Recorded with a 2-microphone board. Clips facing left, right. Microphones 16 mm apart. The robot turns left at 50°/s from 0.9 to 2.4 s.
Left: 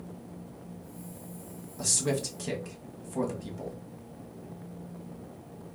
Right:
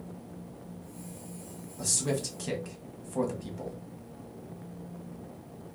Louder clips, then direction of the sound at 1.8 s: Left 2 dB; 25° left (ahead or behind).